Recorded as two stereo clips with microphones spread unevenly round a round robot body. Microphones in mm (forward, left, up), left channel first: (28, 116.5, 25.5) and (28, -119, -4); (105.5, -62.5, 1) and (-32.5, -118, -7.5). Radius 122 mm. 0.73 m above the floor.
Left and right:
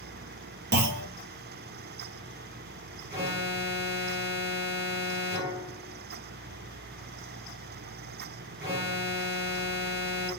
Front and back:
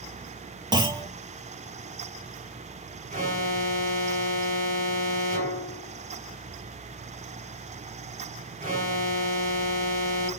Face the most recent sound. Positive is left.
turn(degrees=-150)